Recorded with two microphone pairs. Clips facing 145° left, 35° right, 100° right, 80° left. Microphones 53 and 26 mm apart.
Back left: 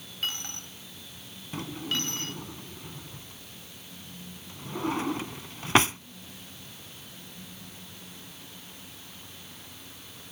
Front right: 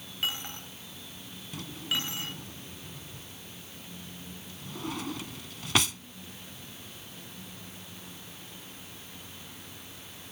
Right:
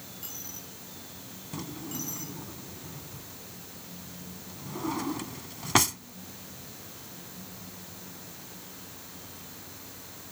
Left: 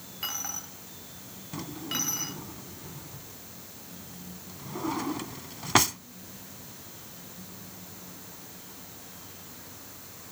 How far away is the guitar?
I don't hear a guitar.